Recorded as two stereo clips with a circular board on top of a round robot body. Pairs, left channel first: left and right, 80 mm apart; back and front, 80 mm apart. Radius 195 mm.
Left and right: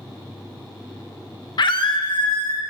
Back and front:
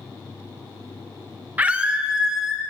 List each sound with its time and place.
1.6 s a scream: 70° left, 1.0 m; by 2.6 s 85° left, 2 m